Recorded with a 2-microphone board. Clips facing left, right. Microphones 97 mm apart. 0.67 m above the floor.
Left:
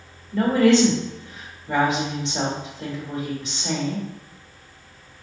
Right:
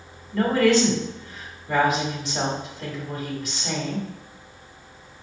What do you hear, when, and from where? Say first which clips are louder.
0.3 s a woman speaking: left 2 dB; 20° left (ahead or behind), 1.6 m